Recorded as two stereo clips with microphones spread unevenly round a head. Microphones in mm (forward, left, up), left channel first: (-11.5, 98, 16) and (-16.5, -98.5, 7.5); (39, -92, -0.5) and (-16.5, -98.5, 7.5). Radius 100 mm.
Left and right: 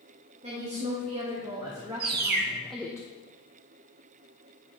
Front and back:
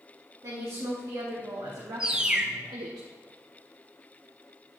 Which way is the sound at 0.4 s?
150° right.